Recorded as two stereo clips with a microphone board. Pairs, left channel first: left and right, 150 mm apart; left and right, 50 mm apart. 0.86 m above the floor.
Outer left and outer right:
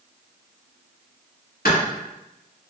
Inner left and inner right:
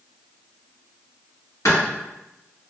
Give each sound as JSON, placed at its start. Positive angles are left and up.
{"t": 1.6, "sound": "a clap", "side_deg": 75, "distance_m": 1.9}